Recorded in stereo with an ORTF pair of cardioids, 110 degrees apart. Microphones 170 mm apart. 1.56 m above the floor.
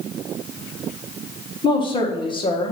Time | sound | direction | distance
1.6 | a woman speaking | 30° left | 1.6 m